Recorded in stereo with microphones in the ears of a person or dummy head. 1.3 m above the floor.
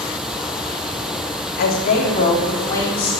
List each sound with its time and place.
1.6 s a woman speaking: 50° left (ahead or behind), 2.5 m; by 3.1 s 10° left (ahead or behind), 3.5 m